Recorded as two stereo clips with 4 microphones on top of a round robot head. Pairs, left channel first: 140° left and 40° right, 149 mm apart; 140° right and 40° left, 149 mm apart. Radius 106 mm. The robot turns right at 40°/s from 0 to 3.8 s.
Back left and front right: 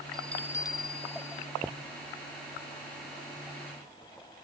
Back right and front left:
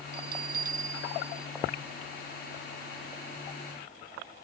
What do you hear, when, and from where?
0.1 s a bell: 50° left; by 1.5 s 105° left